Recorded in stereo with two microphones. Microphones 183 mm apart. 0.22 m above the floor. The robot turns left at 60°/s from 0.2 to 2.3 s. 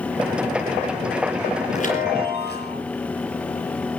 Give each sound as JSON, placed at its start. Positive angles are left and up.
{"t": 1.7, "sound": "a chime", "azimuth_deg": 135, "distance_m": 5.0}